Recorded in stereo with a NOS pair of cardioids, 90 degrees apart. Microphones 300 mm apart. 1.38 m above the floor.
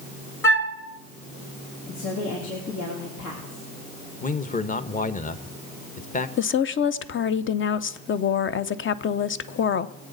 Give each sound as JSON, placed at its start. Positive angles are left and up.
{"t": 0.4, "sound": "a flute", "azimuth_deg": 10, "distance_m": 1.6}
{"t": 1.9, "sound": "a woman speaking", "azimuth_deg": 70, "distance_m": 3.0}
{"t": 4.2, "sound": "a man speaking", "azimuth_deg": 25, "distance_m": 1.2}
{"t": 6.4, "sound": "a woman speaking", "azimuth_deg": 40, "distance_m": 0.8}